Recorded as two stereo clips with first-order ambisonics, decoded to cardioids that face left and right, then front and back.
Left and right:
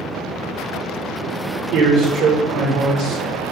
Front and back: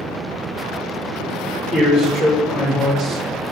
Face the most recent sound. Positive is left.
turn(degrees=-80)